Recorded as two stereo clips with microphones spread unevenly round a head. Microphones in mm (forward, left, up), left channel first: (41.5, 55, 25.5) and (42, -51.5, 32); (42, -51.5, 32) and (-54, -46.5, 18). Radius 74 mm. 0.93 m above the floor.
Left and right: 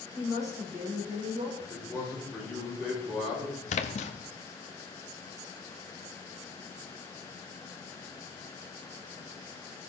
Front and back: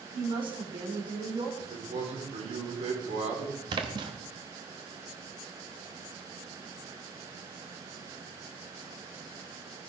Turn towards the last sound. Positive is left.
turn(degrees=120)